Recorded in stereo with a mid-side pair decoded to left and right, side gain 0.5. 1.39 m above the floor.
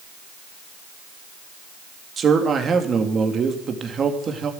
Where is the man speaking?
40° right, 2.5 m.